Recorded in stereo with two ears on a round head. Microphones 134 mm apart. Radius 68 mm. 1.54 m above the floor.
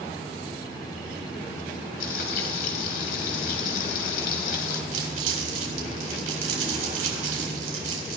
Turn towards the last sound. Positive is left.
turn(degrees=-55)  # may be behind; listen again after turning